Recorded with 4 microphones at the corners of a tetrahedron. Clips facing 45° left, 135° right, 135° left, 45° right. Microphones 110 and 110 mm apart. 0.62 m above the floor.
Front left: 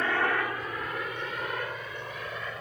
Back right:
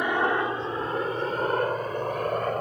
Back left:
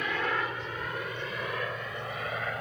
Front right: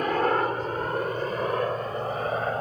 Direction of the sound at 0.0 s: 70° right.